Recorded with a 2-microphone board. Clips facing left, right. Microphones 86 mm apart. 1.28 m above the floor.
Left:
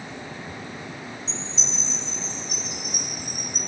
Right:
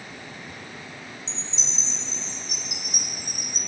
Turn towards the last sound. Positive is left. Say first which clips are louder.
# left 4 dB
turn(degrees=-80)